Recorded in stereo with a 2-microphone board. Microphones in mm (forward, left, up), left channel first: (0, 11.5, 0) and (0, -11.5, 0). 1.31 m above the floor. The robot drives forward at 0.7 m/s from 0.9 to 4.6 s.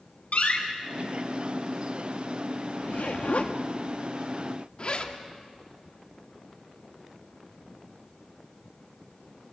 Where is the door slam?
65° left (ahead or behind), 4.5 m.